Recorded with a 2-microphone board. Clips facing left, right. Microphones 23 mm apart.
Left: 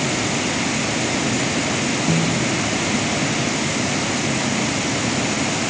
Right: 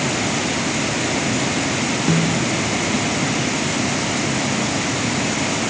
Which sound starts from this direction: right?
A snare drum, at 2.1 s.